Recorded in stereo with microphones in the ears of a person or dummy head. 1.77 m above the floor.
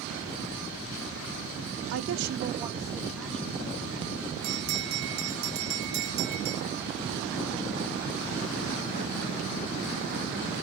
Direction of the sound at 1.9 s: 75° right (ahead or behind).